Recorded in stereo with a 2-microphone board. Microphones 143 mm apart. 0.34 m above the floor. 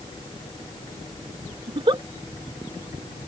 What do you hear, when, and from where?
1.7 s a giggle: 35° right (ahead or behind)